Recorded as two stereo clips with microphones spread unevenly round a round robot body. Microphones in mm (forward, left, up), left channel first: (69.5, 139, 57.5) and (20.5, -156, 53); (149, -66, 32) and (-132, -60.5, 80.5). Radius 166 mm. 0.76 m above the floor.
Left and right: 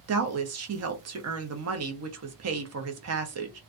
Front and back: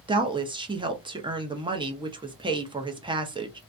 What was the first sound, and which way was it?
A woman speaking, 100° right.